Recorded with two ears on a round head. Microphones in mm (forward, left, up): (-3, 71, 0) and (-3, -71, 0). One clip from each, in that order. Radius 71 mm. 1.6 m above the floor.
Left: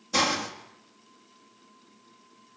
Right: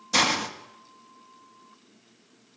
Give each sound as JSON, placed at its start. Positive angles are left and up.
{"t": 0.1, "sound": "a hiss", "side_deg": -25, "distance_m": 1.8}